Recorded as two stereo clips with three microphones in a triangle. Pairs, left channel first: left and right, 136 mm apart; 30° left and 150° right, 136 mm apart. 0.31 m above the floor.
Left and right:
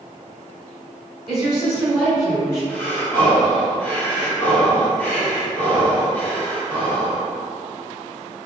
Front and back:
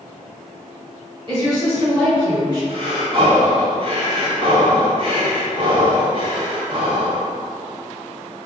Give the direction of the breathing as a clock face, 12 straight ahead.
6 o'clock.